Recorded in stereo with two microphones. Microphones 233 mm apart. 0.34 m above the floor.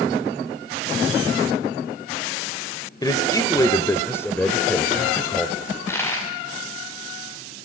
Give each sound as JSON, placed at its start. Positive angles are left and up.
{"t": 3.0, "sound": "a man speaking", "side_deg": 15, "distance_m": 1.6}
{"t": 5.7, "sound": "a dropped coin", "side_deg": 10, "distance_m": 8.5}